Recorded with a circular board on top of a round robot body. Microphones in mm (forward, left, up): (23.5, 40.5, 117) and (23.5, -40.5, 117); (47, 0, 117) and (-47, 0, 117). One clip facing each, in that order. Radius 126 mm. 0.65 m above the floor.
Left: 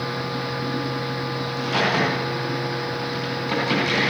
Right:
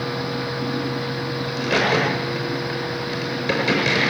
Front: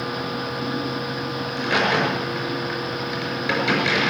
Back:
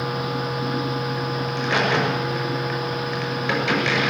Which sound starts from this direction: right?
A crack, at 1.5 s.